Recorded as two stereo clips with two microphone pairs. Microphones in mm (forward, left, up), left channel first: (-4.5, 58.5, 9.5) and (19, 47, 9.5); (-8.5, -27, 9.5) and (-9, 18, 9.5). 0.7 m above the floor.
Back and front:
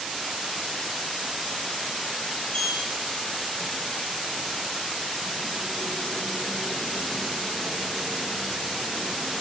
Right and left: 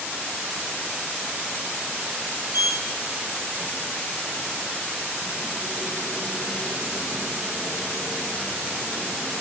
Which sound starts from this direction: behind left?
A sliding door, at 2.5 s.